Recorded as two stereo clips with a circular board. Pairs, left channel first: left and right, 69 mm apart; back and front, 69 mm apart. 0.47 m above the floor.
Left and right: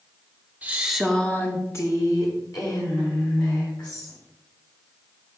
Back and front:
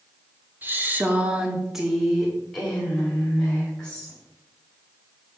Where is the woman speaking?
35° right, 1.0 m; by 4.2 s 100° left, 3 m.